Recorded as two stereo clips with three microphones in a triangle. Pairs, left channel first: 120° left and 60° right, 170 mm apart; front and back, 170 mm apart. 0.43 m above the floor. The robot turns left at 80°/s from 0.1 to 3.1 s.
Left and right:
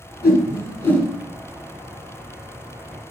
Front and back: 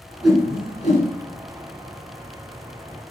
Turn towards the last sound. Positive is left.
turn(degrees=-135)